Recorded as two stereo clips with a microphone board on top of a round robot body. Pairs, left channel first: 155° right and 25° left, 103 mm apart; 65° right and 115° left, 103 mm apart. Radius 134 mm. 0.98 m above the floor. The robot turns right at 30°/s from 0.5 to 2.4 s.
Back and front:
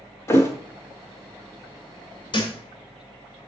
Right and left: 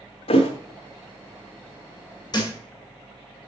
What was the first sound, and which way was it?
A thud, 90° right.